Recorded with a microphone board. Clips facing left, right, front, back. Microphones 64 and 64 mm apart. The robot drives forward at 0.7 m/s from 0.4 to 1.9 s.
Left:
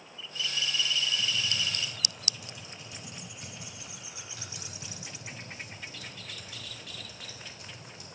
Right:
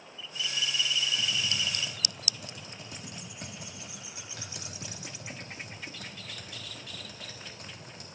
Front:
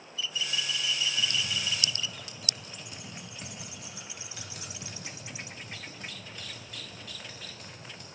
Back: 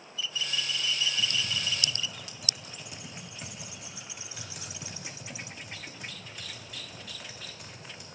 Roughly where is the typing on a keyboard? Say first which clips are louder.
Even, even; right.